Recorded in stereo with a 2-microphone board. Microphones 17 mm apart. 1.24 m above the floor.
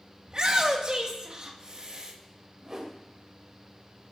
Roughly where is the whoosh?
Right.